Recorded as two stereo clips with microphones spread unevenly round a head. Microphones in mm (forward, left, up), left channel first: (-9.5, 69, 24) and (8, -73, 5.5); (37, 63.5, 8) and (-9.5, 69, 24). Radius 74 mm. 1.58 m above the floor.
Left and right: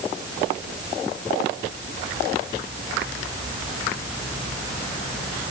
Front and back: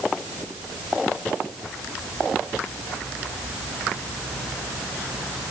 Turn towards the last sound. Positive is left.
No sound to turn to.